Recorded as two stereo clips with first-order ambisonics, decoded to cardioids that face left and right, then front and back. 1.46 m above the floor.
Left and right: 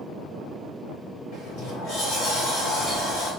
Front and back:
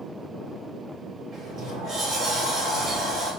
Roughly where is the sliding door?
Behind left.